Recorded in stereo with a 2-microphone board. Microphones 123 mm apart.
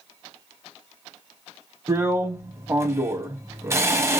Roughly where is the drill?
Right.